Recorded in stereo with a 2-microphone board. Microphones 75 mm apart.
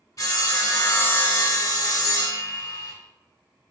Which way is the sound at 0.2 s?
50° left (ahead or behind).